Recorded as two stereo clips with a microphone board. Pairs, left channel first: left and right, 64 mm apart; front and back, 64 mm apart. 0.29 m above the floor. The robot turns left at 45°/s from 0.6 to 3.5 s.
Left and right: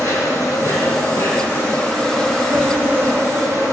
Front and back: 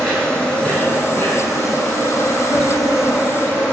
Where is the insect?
75° left, 5 m; by 3.7 s 55° right, 5 m.